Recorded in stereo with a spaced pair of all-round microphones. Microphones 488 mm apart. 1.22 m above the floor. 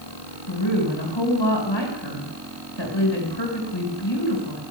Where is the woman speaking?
65° left (ahead or behind), 5.5 m.